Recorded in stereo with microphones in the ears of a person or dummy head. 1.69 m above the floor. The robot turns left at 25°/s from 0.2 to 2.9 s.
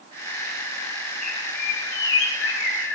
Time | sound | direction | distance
1.2 | a bird | 125° left | 4.5 m